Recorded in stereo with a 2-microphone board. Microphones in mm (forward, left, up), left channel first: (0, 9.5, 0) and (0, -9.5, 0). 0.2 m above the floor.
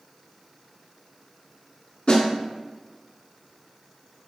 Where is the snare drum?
55° left (ahead or behind), 0.9 m.